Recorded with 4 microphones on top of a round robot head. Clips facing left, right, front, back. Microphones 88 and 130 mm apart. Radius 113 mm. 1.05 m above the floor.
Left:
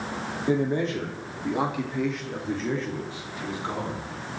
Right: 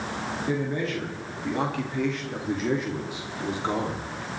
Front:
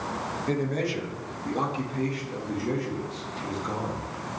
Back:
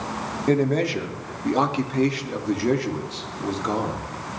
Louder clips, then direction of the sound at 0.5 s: Left 5 dB, back 8 dB; 150° left.